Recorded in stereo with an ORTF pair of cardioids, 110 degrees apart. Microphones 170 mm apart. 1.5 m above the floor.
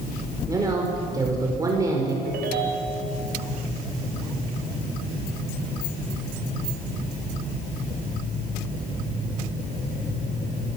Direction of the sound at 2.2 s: 65° right.